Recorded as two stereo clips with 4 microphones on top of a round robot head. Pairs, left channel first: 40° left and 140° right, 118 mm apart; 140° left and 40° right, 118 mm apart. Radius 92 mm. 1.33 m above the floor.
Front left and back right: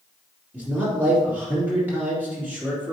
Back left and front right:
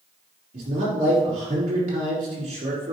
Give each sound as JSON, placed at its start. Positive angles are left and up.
{"t": 0.5, "sound": "a man speaking", "azimuth_deg": -65, "distance_m": 3.0}